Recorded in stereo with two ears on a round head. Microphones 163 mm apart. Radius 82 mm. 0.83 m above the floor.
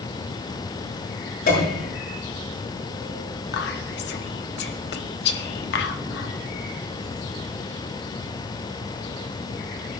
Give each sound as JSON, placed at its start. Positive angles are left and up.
{"t": 1.5, "sound": "a piano", "side_deg": 50, "distance_m": 8.0}
{"t": 3.5, "sound": "whispering", "side_deg": 65, "distance_m": 1.9}